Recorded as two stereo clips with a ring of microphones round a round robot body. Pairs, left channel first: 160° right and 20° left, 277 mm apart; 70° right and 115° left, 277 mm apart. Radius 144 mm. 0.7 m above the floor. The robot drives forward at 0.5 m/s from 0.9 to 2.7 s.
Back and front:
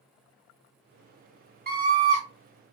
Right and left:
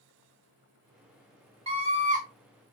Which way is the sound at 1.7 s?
55° left.